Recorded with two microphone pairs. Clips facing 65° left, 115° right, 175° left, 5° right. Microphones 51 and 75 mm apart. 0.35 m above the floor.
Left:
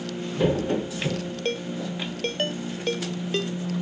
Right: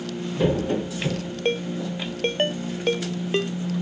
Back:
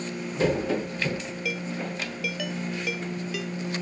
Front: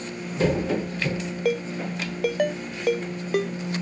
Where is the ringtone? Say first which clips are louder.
Right 5 dB, front 7 dB; 50° right.